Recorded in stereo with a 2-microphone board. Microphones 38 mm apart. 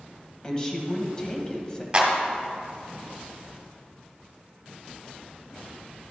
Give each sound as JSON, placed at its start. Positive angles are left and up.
{"t": 0.4, "sound": "a woman speaking", "side_deg": 20, "distance_m": 1.2}
{"t": 1.9, "sound": "a clap", "side_deg": -30, "distance_m": 1.4}